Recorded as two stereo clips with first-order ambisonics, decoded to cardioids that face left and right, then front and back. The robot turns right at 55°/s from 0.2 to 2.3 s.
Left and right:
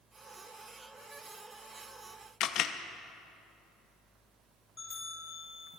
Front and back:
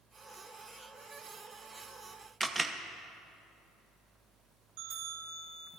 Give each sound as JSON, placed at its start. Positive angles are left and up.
{"t": 2.4, "sound": "a camera shutter", "azimuth_deg": 105, "distance_m": 0.7}
{"t": 4.8, "sound": "a bell", "azimuth_deg": 170, "distance_m": 5.0}